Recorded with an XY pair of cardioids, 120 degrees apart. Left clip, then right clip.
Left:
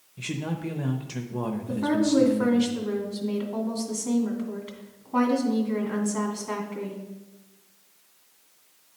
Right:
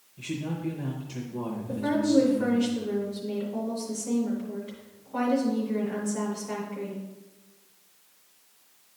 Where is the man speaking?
45° left, 0.7 m.